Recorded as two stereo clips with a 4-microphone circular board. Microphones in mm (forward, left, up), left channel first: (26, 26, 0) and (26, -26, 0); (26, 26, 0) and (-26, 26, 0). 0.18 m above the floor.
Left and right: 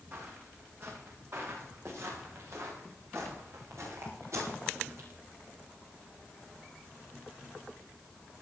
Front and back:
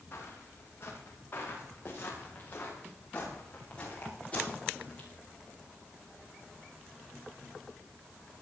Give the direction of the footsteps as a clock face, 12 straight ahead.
1 o'clock.